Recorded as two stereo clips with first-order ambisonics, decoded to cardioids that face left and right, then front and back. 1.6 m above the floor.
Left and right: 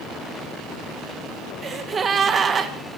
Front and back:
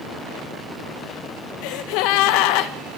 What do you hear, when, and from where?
1.6 s a gasp: 20° right, 2 m